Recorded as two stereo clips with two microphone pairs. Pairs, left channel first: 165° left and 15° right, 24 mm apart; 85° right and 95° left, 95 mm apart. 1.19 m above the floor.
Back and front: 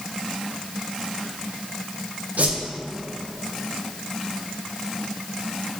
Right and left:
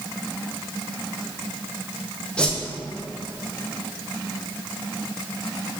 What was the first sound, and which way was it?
A whoosh, 5° right.